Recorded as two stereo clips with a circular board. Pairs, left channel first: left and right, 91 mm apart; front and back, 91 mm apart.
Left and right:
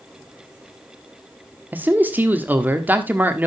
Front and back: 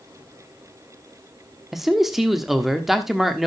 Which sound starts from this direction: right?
A man speaking, at 1.7 s.